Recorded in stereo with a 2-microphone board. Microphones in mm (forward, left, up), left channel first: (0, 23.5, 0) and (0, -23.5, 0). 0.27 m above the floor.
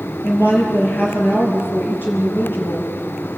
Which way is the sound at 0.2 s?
50° left (ahead or behind).